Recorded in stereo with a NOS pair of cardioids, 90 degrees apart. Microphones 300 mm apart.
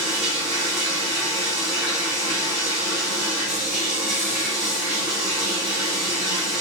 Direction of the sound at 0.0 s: 60° right.